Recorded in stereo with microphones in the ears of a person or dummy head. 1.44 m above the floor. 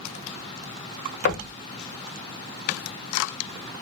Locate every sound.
1.2 s knocking: 55° left (ahead or behind), 0.7 m